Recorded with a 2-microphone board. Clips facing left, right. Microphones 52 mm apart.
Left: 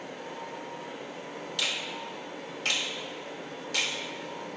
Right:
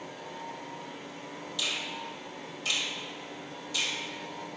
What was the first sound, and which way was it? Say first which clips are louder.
A finger snap: left 1 dB; 60° left (ahead or behind).